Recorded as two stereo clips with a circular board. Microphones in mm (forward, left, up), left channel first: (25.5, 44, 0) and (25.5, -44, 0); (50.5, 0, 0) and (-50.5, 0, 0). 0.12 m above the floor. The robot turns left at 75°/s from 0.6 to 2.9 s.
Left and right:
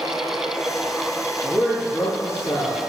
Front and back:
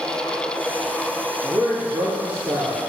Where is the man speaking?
145° right, 3.5 m; by 2.8 s 115° left, 3.5 m.